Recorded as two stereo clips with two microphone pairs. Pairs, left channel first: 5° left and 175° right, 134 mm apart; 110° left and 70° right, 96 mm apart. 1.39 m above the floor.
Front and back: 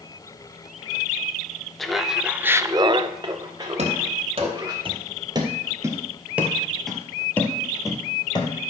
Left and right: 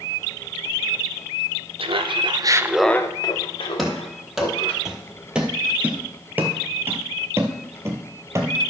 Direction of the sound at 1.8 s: 85° right.